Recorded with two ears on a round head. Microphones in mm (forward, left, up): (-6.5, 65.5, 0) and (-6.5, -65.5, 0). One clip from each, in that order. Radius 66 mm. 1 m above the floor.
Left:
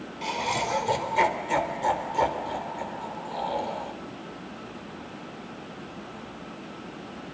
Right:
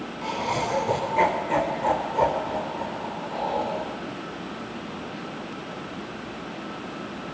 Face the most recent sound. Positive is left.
turn(degrees=70)  # may be behind; listen again after turning